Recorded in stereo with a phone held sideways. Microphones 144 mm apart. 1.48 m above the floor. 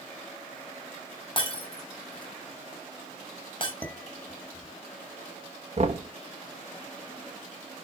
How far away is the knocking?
About 1.6 m.